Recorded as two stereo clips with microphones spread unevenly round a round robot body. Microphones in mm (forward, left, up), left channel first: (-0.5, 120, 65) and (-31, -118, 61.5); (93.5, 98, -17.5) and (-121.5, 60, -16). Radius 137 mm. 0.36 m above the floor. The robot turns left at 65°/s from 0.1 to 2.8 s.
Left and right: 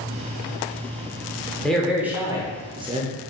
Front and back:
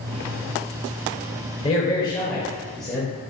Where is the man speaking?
Straight ahead, 0.9 m; by 3.1 s 75° right, 0.9 m.